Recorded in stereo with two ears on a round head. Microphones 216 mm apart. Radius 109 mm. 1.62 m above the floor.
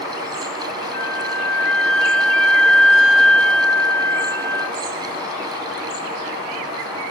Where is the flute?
55° right (ahead or behind), 4.5 m.